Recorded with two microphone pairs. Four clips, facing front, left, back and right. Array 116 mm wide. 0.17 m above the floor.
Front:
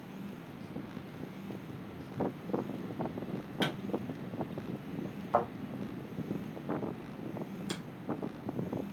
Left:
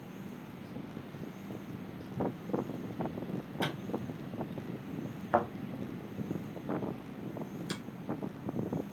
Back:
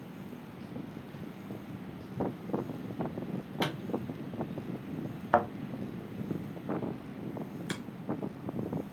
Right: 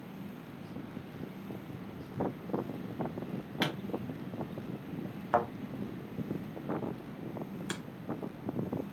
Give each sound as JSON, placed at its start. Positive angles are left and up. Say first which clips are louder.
{"t": 3.6, "sound": "a pop", "louder": "right 2 dB, even", "azimuth_deg": -85, "distance_m": 4.0}
{"t": 5.3, "sound": "a thud", "louder": "even, back 3 dB", "azimuth_deg": -165, "distance_m": 0.9}
{"t": 7.7, "sound": "a finger snap", "louder": "right 1 dB, back 2 dB", "azimuth_deg": -125, "distance_m": 1.8}